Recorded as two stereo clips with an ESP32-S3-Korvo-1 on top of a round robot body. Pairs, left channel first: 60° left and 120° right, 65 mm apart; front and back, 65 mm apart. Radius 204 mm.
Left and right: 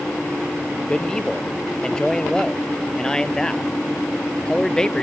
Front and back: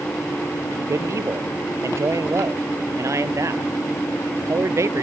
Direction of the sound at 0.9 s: 140° left.